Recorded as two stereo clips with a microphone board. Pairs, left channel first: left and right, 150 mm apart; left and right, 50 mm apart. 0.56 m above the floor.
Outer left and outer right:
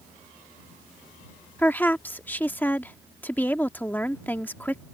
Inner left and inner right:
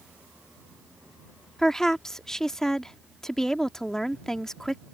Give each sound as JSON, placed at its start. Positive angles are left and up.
{"t": 1.6, "sound": "a woman speaking", "side_deg": 10}